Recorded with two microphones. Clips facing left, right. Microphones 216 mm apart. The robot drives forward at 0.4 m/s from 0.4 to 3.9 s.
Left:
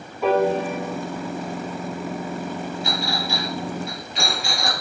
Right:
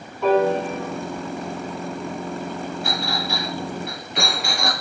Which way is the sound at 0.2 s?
5° left (ahead or behind).